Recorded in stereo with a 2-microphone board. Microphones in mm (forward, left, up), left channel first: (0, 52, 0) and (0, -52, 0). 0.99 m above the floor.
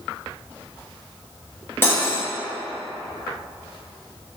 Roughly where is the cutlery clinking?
Left.